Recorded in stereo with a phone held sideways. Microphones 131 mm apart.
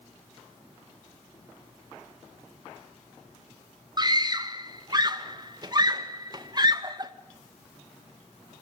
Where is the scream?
30° right (ahead or behind), 1.8 m.